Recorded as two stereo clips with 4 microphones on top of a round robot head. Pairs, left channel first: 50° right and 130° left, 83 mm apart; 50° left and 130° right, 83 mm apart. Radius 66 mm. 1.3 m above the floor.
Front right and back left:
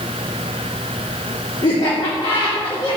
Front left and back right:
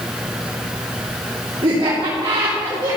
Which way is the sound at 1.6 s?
95° right.